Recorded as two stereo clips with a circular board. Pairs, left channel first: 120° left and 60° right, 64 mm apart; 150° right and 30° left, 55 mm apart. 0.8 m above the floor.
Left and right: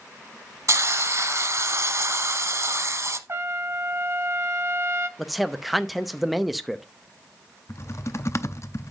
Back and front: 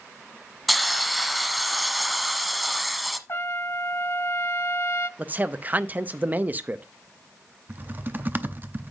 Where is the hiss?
60° right, 0.9 m.